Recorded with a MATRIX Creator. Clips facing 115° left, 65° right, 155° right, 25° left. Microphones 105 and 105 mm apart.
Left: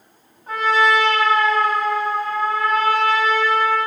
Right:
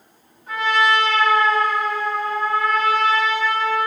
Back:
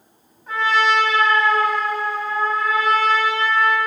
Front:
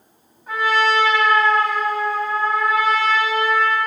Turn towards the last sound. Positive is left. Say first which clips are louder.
# left 2 dB, even
turn(degrees=110)